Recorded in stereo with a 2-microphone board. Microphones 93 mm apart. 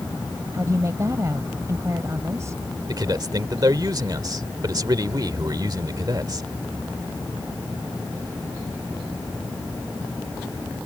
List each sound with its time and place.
0.5 s a woman speaking: 35° right (ahead or behind)
2.9 s a man speaking: 45° right (ahead or behind)